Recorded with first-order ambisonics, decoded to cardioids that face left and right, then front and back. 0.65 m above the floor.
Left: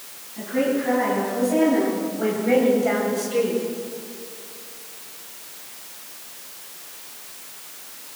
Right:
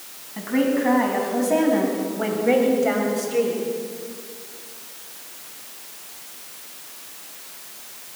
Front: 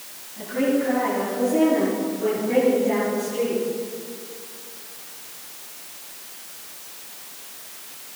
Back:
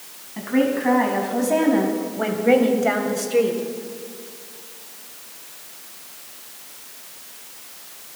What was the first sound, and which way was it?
A woman speaking, 140° right.